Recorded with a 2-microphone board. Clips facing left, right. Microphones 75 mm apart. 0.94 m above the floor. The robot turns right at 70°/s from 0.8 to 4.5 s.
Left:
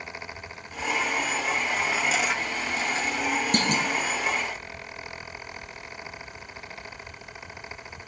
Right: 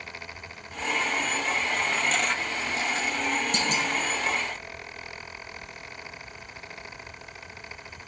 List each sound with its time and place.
3.5 s a clunk: 50° left (ahead or behind), 0.8 m; by 3.9 s 35° left (ahead or behind), 0.8 m